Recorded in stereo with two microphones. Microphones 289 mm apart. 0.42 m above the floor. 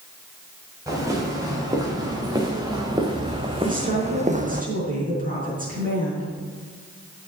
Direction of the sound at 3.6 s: 30° right (ahead or behind).